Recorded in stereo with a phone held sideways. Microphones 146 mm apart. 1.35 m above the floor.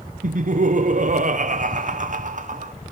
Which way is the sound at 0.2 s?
60° right (ahead or behind).